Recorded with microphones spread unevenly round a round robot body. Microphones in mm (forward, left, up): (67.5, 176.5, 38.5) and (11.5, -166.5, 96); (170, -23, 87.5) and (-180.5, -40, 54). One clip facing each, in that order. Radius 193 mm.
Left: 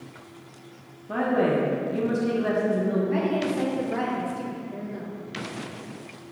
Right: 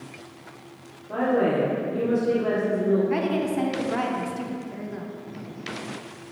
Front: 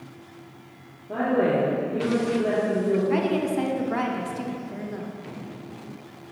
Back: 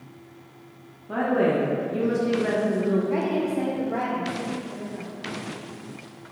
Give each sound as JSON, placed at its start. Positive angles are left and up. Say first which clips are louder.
{"t": 1.1, "sound": "a woman speaking", "louder": "right 1 dB, even", "azimuth_deg": 125, "distance_m": 0.7}
{"t": 3.1, "sound": "a woman speaking", "louder": "right 1 dB, front 1 dB", "azimuth_deg": -30, "distance_m": 0.6}